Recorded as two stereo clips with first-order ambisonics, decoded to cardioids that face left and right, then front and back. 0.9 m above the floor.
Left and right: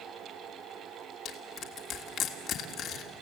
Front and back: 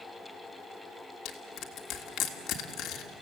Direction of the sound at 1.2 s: 35° left.